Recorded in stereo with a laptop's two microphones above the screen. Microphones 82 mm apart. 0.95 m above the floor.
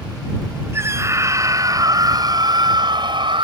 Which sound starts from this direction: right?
A scream, at 0.7 s.